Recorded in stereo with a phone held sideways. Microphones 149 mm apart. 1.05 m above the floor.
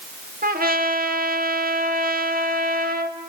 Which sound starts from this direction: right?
A trumpet, at 0.4 s.